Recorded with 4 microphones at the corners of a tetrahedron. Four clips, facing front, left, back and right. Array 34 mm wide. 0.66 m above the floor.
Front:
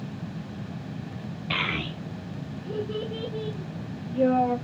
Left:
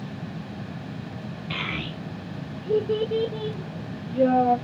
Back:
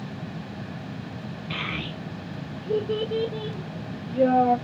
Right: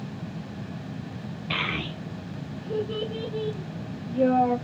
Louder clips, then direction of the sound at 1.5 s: Right 2 dB, front 3 dB; 30° right.